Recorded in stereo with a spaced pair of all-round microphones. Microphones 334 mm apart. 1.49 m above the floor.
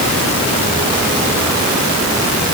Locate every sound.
Only background noise.